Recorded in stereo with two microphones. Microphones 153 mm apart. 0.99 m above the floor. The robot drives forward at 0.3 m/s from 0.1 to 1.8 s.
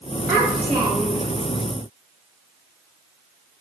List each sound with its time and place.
0.3 s a child speaking: 25° right (ahead or behind), 1.0 m; by 1.3 s 35° right (ahead or behind), 0.7 m